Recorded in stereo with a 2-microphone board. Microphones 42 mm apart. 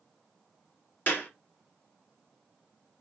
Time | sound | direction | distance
1.1 | a clap | 50° left (ahead or behind) | 1.5 m